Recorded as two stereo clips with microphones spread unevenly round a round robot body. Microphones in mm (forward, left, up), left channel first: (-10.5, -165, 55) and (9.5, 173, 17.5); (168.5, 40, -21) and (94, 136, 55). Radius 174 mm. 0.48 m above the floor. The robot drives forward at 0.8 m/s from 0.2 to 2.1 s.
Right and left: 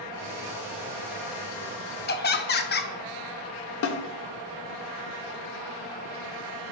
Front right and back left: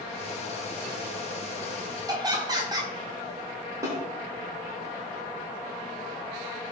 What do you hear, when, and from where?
2.1 s laughter: 130° right, 0.8 m; by 2.9 s 135° right, 0.8 m
3.8 s a snare drum: 135° right, 0.9 m